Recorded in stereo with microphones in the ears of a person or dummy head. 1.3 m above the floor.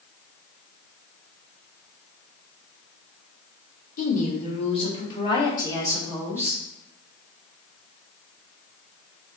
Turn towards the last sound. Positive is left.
turn(degrees=10)  # may be behind; listen again after turning